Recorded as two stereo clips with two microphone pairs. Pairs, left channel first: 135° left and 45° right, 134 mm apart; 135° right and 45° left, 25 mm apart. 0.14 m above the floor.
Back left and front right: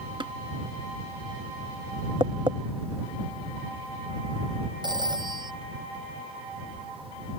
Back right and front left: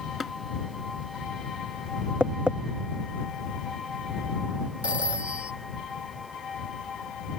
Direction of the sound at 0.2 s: 40° right.